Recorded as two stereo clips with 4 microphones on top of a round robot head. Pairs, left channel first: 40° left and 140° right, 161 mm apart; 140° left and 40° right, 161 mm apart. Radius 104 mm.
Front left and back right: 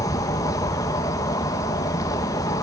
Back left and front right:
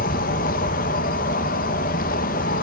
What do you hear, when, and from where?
0.0 s an insect: 110° left, 0.8 m